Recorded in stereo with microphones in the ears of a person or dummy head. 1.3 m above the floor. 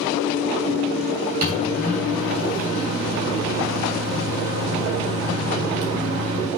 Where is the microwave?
45° right (ahead or behind), 3 m.